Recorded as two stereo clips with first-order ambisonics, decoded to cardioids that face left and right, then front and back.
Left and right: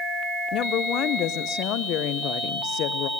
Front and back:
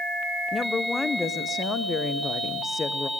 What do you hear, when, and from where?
0.5 s a woman speaking: 75° left, 0.8 m